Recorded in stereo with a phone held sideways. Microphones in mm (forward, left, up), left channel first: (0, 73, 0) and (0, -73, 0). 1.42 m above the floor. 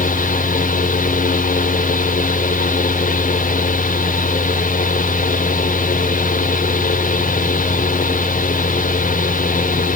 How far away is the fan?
About 2 m.